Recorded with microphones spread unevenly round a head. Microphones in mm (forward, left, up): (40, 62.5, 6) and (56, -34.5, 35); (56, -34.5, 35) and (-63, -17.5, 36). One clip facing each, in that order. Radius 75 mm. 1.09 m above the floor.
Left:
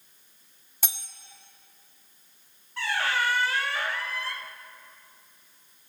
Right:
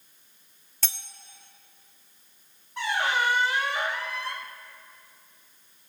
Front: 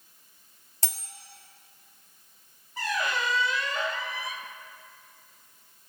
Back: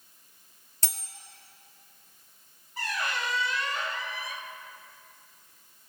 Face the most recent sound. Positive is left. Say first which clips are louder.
# right 2 dB, front 3 dB
turn(degrees=-10)